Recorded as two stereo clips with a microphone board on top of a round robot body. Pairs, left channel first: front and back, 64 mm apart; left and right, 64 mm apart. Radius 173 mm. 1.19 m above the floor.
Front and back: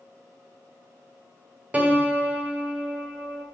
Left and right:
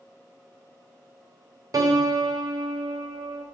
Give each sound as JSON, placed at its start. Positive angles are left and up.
{"t": 1.7, "sound": "a piano", "azimuth_deg": -115, "distance_m": 0.5}